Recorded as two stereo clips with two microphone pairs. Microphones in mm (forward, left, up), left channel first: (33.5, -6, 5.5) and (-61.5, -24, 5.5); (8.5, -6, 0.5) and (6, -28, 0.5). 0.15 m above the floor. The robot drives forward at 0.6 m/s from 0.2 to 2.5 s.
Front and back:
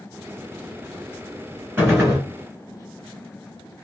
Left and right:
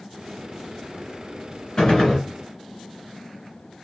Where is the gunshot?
130° left, 1.5 m; by 2.2 s 140° left, 1.7 m.